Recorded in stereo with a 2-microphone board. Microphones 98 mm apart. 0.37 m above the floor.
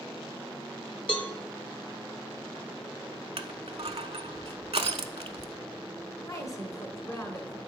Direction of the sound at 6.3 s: 35° left (ahead or behind).